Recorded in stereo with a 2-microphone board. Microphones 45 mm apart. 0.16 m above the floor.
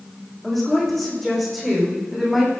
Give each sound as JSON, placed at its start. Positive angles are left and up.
{"t": 0.4, "sound": "a woman speaking", "side_deg": 5, "distance_m": 9.5}